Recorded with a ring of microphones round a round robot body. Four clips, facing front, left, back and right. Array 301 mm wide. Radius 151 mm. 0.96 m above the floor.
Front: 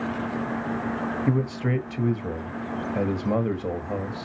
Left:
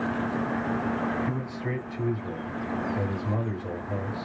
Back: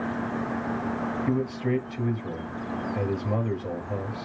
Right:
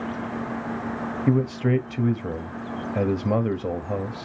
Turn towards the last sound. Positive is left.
turn(degrees=-65)